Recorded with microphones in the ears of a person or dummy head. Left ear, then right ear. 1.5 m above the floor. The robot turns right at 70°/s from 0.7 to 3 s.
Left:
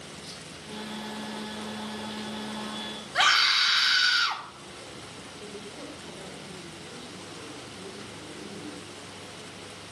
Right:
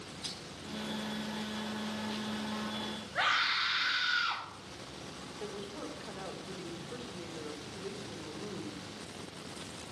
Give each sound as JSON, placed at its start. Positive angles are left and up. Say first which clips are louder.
{"t": 0.2, "sound": "crushing", "louder": "right 4 dB", "side_deg": -50, "distance_m": 6.5}
{"t": 3.1, "sound": "a scream", "louder": "left 8 dB", "side_deg": 70, "distance_m": 3.5}
{"t": 5.4, "sound": "a woman speaking", "louder": "right 1 dB", "side_deg": -20, "distance_m": 1.6}